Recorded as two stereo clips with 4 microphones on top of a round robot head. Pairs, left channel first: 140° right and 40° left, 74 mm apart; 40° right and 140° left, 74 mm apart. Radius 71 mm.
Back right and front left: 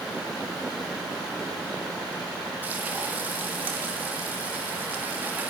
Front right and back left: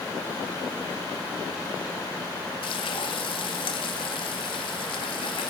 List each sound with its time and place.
2.6 s frying: 30° right, 1.4 m